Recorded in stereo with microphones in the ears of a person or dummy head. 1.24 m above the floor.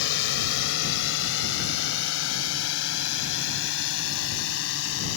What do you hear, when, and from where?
0.0 s a drone: 75° left (ahead or behind); by 5.2 s 85° left